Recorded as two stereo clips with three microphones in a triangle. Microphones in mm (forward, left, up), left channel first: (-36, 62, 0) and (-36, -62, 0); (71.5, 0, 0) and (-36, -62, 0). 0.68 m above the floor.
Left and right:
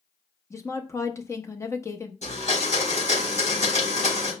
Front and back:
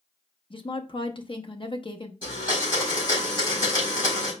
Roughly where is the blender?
Left.